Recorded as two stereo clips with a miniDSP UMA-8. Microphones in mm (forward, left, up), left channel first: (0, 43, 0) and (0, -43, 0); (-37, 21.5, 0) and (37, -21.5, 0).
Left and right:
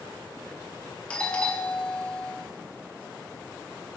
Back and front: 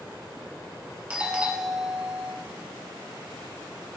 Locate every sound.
1.1 s a doorbell: 30° left, 1.4 m